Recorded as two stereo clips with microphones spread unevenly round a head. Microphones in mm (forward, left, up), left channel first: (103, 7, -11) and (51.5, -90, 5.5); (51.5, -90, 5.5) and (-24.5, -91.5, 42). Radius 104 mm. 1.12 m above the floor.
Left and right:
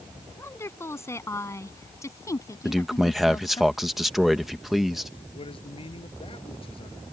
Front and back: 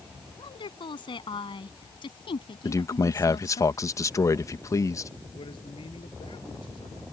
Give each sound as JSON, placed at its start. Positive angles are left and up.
{"t": 0.4, "sound": "a woman speaking", "azimuth_deg": -5}
{"t": 2.6, "sound": "a man speaking", "azimuth_deg": -30}
{"t": 5.3, "sound": "a man speaking", "azimuth_deg": 25}